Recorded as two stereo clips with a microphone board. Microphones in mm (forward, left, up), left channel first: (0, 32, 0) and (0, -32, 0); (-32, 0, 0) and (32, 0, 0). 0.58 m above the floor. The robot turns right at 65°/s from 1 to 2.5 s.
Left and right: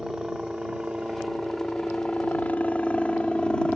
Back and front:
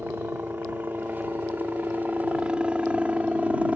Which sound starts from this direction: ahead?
A helicopter, at 0.0 s.